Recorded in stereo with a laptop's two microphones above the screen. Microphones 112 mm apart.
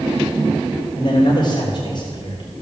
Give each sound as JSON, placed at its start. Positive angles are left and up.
{"t": 1.0, "sound": "a man speaking", "side_deg": 45, "distance_m": 3.5}